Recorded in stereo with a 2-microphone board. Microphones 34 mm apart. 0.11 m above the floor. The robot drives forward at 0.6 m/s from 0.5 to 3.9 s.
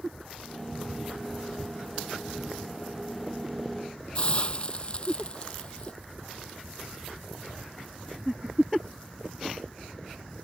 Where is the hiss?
35° left (ahead or behind).